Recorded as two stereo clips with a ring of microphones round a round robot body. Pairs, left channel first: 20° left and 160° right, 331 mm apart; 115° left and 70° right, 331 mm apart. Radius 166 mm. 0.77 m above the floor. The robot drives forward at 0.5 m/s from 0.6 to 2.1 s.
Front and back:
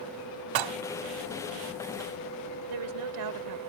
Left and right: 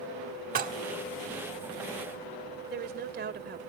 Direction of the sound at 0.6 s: 135° right.